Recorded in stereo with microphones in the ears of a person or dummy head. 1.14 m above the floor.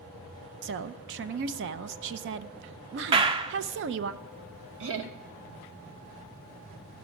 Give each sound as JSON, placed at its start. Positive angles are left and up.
{"t": 0.6, "sound": "a woman speaking", "side_deg": -55, "distance_m": 0.5}
{"t": 3.1, "sound": "a clap", "side_deg": -25, "distance_m": 0.6}
{"t": 4.8, "sound": "laughter", "side_deg": -65, "distance_m": 1.0}